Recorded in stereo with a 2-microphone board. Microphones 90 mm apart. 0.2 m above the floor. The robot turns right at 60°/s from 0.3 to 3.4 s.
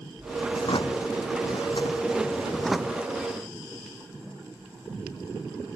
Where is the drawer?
50° left (ahead or behind); by 3.1 s 20° right (ahead or behind).